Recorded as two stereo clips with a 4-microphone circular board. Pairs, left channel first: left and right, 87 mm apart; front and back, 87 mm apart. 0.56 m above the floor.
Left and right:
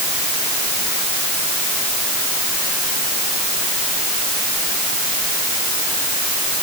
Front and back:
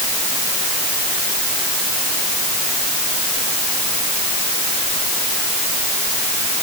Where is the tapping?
No tapping in this recording.